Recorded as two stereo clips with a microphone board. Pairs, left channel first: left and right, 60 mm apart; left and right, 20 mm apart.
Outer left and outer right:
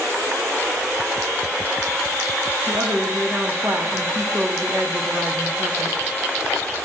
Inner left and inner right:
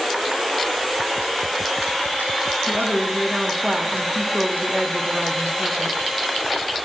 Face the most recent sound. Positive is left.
turn(degrees=-45)  # may be behind; listen again after turning